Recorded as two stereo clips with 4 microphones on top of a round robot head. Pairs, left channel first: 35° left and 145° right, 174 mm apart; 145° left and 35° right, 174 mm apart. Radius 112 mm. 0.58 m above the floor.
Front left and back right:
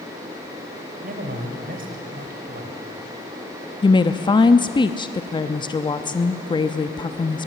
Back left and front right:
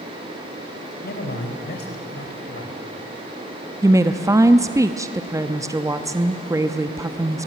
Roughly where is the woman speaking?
Ahead.